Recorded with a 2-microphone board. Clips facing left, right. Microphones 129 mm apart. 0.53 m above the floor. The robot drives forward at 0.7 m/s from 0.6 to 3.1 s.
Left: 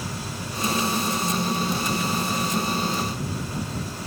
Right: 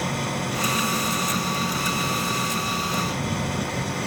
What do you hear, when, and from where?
0.0 s an engine running: 65° right (ahead or behind); by 4.1 s 70° right (ahead or behind)